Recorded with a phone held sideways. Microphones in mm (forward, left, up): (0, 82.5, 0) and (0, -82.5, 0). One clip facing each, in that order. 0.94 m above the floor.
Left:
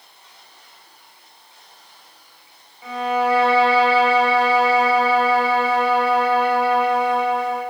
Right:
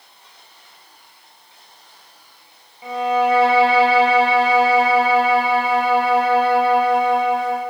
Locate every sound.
2.8 s a violin: 25° right (ahead or behind), 0.8 m